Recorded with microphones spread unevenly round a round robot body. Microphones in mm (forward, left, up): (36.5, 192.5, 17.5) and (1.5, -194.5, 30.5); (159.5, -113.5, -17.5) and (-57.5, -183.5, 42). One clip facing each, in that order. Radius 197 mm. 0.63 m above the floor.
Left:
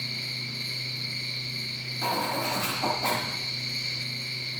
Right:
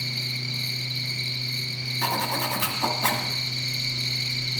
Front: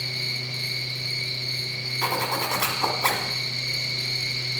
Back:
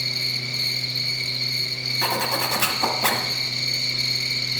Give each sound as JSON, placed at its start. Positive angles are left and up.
{"t": 0.0, "sound": "an insect", "azimuth_deg": -140, "distance_m": 1.8}
{"t": 2.0, "sound": "a zipper", "azimuth_deg": -120, "distance_m": 1.4}